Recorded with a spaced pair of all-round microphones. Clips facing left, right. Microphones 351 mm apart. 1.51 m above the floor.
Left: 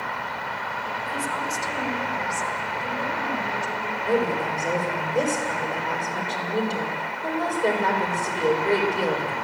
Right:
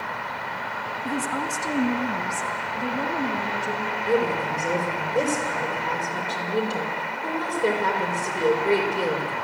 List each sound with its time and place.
1.1 s a woman speaking: 60° right (ahead or behind), 1.1 m; by 4.0 s 65° right (ahead or behind), 3.5 m
4.0 s a woman speaking: 15° right (ahead or behind), 6.5 m